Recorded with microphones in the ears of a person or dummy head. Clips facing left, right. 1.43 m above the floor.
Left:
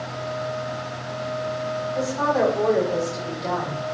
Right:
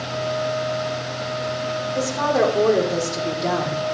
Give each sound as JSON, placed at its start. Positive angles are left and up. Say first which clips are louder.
{"t": 1.9, "sound": "a woman speaking", "louder": "right 2 dB", "side_deg": -50, "distance_m": 5.5}